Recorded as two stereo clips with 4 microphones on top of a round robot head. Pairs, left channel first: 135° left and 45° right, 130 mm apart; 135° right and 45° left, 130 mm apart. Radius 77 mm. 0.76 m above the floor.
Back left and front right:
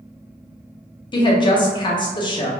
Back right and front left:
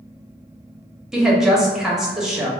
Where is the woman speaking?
130° left, 0.7 m.